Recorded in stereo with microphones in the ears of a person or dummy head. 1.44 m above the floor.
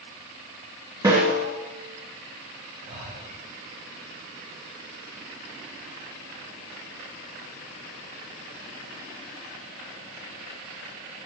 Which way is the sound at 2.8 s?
75° right (ahead or behind).